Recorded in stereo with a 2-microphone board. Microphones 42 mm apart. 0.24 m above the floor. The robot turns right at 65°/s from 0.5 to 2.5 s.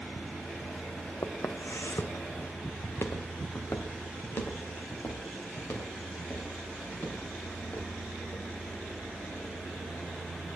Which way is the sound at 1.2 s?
70° left (ahead or behind).